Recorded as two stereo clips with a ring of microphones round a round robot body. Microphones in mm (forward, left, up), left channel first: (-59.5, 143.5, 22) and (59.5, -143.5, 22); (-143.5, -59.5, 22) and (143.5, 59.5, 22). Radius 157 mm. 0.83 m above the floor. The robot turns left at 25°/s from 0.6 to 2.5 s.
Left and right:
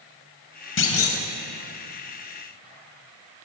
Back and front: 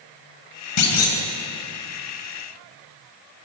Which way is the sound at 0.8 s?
165° left.